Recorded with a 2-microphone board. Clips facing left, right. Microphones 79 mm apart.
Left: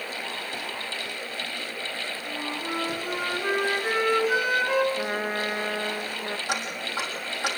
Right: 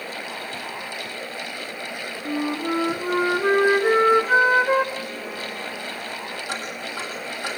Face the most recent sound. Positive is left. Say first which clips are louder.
# even
turn(degrees=15)  # may be behind; listen again after turning